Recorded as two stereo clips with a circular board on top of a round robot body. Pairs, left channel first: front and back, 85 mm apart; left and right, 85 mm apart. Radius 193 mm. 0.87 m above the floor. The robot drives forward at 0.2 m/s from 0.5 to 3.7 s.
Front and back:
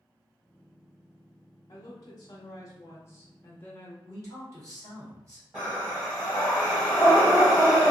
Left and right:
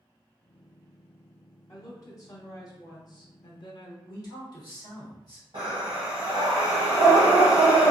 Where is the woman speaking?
40° left, 0.9 m; by 4.0 s 65° left, 0.7 m.